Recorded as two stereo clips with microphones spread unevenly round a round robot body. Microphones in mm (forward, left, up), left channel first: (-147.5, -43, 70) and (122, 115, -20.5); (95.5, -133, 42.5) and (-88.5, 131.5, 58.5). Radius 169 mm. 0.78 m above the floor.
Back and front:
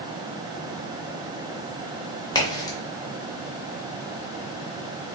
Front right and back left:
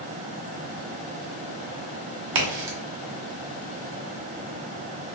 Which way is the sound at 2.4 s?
155° left.